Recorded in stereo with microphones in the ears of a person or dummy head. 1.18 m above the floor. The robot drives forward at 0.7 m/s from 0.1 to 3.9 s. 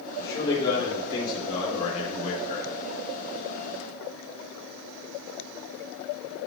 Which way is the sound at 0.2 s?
20° left (ahead or behind).